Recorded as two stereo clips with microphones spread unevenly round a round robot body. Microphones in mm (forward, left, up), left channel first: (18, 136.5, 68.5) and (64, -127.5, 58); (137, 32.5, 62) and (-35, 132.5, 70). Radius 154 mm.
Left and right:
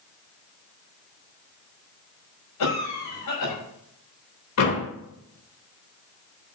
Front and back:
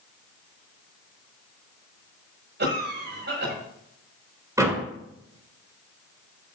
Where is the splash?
No splash in this recording.